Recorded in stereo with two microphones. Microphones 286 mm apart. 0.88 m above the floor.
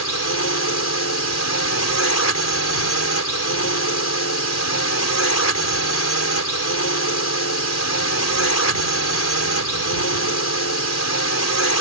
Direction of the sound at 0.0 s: 65° left (ahead or behind).